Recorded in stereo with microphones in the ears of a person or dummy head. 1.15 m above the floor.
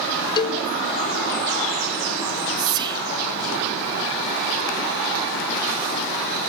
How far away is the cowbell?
About 1.0 m.